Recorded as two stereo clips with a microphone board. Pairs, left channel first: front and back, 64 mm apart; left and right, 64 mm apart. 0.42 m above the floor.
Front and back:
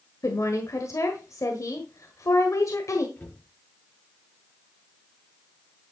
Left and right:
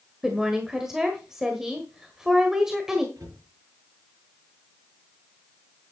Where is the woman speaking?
5° right, 1.5 m.